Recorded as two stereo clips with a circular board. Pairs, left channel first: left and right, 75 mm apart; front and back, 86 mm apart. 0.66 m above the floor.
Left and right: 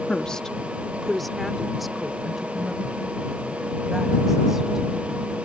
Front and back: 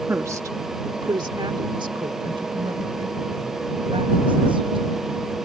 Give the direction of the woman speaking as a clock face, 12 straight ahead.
7 o'clock.